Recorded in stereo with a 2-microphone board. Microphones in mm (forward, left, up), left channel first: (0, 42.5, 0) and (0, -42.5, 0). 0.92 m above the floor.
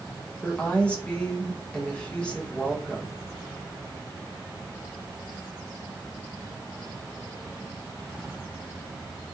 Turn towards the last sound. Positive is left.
turn(degrees=10)  # may be behind; listen again after turning